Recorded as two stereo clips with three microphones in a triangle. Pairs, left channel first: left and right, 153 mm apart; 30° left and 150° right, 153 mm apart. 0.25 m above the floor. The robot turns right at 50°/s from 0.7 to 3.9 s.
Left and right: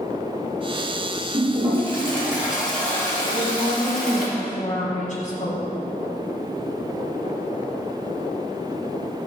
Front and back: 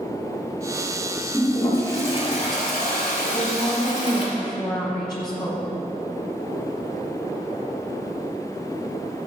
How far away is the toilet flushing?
About 3.5 m.